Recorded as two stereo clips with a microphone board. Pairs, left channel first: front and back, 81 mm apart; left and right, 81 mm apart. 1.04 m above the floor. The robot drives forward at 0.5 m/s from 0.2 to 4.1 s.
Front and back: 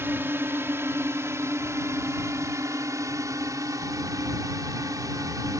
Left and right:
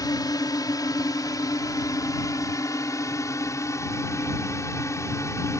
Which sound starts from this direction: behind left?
A drone, at 0.0 s.